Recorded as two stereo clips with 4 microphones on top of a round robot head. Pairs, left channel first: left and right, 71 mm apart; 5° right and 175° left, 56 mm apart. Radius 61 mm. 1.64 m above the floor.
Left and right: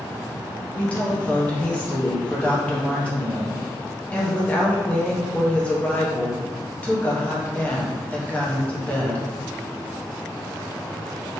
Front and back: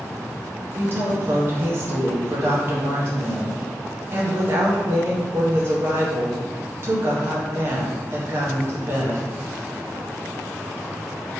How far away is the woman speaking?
About 0.6 m.